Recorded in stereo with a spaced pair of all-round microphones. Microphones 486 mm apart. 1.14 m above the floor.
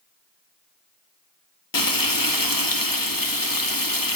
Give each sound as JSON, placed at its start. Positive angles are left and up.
{"t": 1.7, "sound": "frying", "side_deg": 45, "distance_m": 0.9}